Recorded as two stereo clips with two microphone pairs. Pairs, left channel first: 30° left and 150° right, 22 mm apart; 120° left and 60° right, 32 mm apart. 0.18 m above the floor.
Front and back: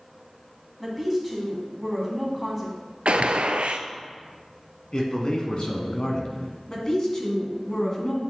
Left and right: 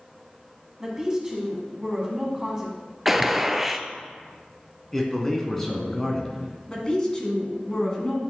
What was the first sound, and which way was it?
A woman speaking, 50° right.